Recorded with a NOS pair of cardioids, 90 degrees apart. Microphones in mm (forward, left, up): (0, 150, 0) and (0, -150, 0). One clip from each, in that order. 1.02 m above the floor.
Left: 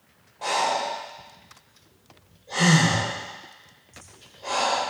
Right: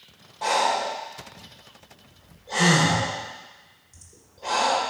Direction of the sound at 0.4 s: 20° right.